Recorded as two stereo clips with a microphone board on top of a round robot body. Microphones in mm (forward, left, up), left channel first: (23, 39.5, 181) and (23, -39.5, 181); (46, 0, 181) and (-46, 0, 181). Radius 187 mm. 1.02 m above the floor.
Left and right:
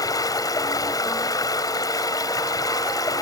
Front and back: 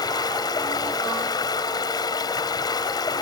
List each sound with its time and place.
0.0 s running water: 45° left